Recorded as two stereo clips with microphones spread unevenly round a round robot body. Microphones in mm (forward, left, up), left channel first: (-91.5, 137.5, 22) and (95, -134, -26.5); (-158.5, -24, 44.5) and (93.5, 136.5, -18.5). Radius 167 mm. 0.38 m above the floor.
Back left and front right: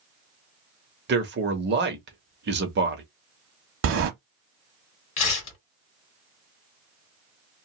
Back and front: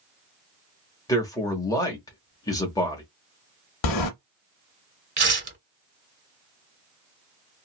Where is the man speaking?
60° right, 0.9 m.